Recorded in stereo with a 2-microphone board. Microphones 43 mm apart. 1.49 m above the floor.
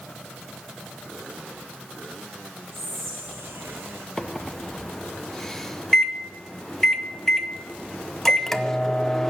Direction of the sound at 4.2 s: 10° left (ahead or behind).